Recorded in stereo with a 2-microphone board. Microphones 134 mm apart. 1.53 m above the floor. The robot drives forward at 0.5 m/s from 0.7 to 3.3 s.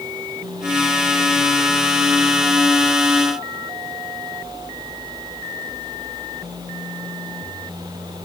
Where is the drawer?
I don't hear a drawer.